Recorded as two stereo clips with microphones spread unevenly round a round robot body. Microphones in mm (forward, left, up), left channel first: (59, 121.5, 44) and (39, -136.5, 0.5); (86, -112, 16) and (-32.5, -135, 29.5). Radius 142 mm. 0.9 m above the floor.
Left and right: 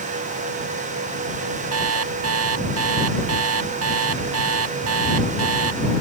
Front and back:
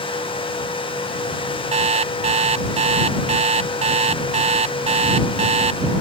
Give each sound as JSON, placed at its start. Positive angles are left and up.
{"t": 1.7, "sound": "an alarm clock", "azimuth_deg": -140}